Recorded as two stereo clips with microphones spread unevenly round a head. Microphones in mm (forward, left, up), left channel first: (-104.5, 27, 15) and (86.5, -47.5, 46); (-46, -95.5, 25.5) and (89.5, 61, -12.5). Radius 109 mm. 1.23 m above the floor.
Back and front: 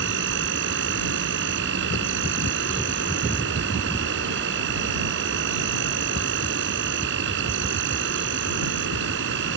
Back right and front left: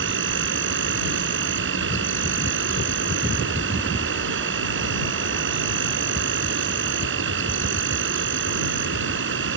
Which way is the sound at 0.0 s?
15° left.